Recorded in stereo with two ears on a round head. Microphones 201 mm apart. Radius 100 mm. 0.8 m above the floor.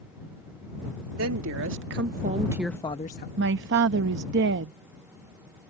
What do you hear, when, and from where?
1.1 s a woman speaking: 70° right (ahead or behind); by 3.3 s 45° left (ahead or behind)
3.4 s a man speaking: 55° right (ahead or behind)